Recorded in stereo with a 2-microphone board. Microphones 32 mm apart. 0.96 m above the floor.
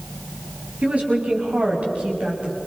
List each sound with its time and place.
0.8 s a woman speaking: 45° right (ahead or behind), 6.5 m